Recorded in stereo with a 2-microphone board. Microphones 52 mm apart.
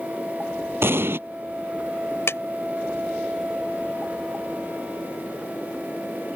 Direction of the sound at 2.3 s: 60° left (ahead or behind).